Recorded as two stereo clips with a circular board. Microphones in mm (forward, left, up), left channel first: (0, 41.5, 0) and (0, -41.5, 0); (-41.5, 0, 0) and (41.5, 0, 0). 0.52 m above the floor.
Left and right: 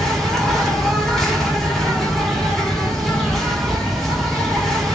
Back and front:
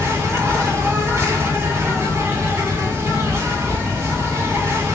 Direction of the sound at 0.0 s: 10° left.